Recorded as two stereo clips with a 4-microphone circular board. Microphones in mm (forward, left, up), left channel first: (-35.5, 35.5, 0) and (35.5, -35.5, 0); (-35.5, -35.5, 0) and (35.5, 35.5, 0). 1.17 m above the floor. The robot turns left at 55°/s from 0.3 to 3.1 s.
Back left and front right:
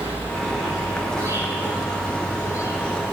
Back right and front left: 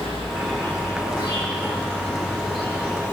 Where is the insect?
40° right, 7 m; by 3.1 s 165° left, 7 m.